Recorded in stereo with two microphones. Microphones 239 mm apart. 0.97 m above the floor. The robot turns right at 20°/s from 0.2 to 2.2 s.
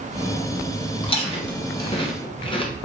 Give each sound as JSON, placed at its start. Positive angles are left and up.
{"t": 1.0, "sound": "chewing", "side_deg": 20, "distance_m": 0.7}